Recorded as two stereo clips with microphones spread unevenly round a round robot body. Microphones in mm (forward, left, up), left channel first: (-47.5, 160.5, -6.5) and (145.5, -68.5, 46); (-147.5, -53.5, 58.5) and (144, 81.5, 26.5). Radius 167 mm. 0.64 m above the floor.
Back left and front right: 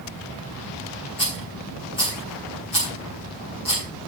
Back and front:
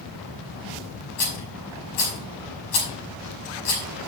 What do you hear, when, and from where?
1.2 s a rattle: 155° right, 6 m